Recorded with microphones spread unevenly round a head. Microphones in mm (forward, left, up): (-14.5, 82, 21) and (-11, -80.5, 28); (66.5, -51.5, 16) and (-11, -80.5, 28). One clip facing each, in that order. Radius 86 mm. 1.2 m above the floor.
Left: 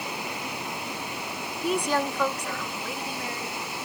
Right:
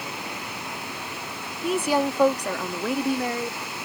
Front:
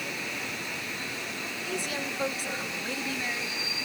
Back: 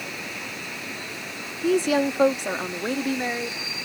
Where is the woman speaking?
Straight behind; by 3.6 s 110° right.